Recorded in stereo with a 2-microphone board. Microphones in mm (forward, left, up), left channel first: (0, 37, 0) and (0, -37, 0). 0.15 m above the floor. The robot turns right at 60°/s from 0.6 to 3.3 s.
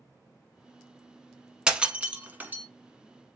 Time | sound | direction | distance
1.7 | breaking glass | 10° right (ahead or behind) | 0.8 m